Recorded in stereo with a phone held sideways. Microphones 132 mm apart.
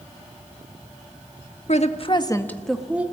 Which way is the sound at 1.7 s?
65° left (ahead or behind).